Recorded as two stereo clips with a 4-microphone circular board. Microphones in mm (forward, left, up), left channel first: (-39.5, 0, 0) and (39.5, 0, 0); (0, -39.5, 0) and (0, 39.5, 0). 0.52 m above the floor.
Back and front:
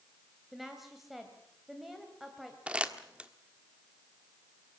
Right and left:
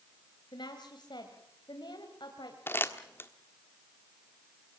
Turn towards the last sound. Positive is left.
turn(degrees=-65)